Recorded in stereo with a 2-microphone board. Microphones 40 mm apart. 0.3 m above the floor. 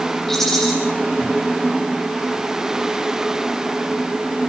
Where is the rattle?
10° left (ahead or behind), 8 m.